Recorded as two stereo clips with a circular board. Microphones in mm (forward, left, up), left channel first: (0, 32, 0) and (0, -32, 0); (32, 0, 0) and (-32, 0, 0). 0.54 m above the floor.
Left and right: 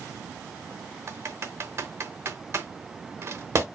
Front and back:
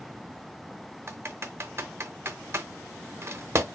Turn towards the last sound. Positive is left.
turn(degrees=-135)